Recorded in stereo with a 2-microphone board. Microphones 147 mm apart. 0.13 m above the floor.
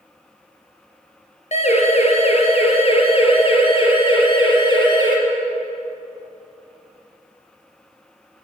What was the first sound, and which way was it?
A siren, 50° left (ahead or behind).